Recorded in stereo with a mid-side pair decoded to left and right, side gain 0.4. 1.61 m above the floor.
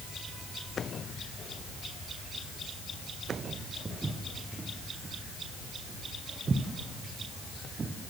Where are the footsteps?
35° right, 7.5 m; by 8.0 s 45° right, 4.5 m.